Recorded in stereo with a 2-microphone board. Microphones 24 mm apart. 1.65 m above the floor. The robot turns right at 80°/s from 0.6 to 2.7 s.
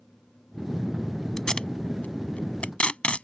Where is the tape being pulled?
15° left (ahead or behind); by 3.2 s 55° left (ahead or behind).